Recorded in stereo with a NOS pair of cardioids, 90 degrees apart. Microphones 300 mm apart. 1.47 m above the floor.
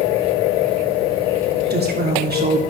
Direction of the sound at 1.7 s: 35° right.